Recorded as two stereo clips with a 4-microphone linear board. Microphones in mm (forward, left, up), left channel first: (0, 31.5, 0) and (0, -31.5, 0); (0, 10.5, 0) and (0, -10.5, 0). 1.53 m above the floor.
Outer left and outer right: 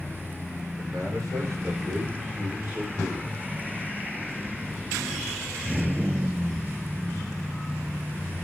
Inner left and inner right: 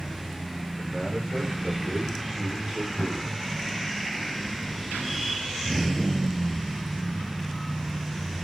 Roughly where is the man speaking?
Right.